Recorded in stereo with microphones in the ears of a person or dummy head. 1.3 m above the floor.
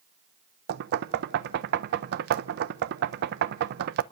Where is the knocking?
60° right (ahead or behind), 0.6 m.